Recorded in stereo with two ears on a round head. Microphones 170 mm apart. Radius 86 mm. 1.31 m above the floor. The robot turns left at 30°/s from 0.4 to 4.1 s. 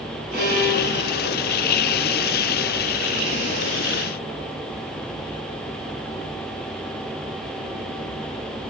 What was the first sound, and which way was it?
A violin, 55° right (ahead or behind).